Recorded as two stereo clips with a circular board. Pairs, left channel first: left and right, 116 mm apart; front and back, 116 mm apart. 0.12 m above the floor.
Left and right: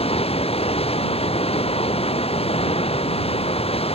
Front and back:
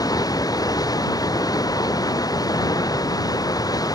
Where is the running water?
60° left.